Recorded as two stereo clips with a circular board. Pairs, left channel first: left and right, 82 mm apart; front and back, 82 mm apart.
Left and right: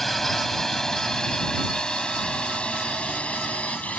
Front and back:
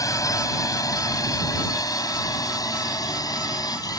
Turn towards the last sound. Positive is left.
turn(degrees=20)